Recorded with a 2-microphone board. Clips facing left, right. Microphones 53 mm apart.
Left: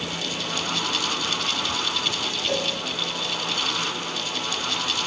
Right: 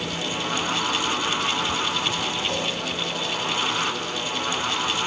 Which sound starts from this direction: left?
A cowbell, at 2.5 s.